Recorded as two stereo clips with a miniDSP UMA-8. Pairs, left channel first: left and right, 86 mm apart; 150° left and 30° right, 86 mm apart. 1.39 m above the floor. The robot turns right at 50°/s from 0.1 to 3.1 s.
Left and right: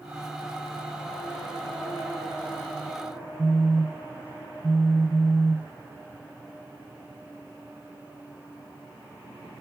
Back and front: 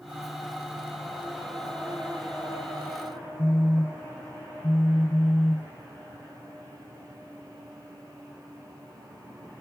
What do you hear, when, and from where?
3.4 s a phone buzzing: 150° right, 0.6 m